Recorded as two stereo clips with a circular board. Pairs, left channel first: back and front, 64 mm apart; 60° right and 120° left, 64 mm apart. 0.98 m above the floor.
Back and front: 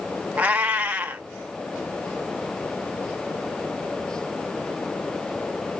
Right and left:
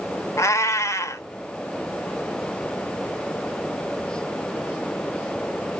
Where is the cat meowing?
60° right, 0.8 m.